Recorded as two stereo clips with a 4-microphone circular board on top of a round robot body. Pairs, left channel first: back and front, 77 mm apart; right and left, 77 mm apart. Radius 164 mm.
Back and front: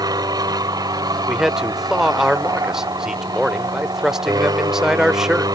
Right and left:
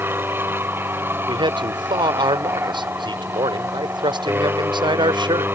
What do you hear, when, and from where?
0.0 s an aircraft: 30° left
1.3 s a man speaking: 85° left